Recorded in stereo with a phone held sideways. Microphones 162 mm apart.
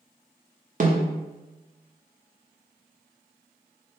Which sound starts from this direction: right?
A snare drum, at 0.8 s.